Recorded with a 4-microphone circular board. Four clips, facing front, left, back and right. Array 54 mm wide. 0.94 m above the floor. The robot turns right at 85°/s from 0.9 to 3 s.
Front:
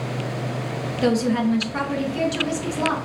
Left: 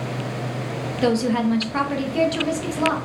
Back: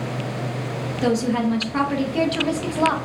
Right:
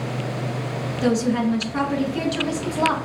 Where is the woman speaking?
55° left, 0.6 m; by 3.0 s 140° right, 0.6 m.